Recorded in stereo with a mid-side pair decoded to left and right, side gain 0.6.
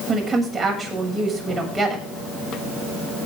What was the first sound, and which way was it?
A woman speaking, 10° right.